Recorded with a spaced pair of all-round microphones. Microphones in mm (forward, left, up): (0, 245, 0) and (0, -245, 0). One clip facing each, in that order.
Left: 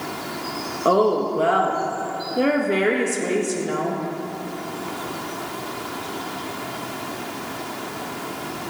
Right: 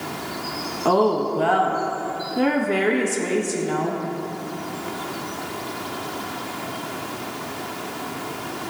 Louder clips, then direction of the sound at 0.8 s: Left 1 dB; 10° right (ahead or behind).